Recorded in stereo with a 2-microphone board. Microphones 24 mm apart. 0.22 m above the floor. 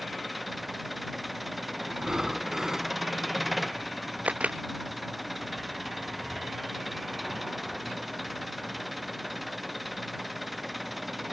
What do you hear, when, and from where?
0.0 s an engine running: 5° right (ahead or behind)
1.9 s breathing: 35° right (ahead or behind)
4.2 s a camera shutter: 70° right (ahead or behind)